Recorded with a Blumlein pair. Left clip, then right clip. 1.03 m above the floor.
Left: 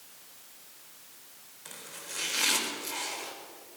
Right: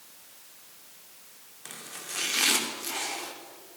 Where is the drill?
I don't hear a drill.